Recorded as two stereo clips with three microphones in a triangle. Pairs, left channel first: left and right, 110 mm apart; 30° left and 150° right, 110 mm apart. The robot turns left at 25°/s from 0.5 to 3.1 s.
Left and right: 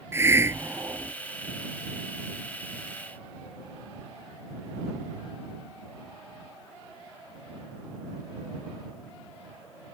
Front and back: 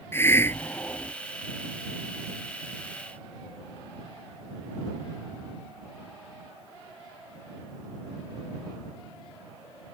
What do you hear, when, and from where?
0.1 s a hiss: 30° right; by 1.1 s 45° right